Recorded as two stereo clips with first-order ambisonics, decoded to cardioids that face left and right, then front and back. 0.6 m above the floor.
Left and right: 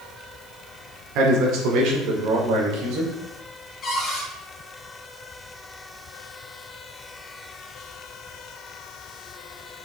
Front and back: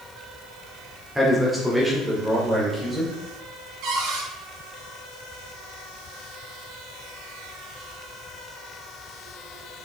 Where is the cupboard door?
160° left, 2.5 m.